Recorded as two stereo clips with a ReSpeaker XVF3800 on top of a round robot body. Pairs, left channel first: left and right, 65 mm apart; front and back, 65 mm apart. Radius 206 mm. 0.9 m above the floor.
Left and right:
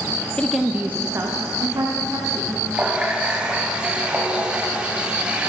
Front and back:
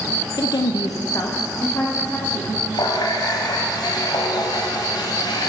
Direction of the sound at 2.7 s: 15° right.